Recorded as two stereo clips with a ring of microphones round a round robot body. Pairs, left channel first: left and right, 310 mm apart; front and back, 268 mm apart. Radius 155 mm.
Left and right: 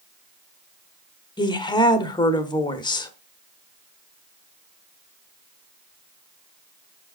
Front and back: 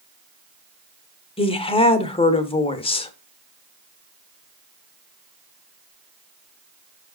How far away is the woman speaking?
About 0.9 m.